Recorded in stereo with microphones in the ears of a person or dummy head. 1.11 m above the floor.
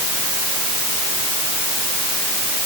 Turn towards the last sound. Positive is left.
No sound to turn to.